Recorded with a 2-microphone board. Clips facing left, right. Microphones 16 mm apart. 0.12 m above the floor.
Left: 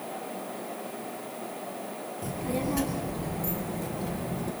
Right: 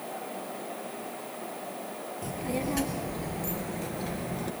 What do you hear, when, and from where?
2.2 s a child speaking: 15° right (ahead or behind), 2 m; by 4.5 s 35° right (ahead or behind), 1.6 m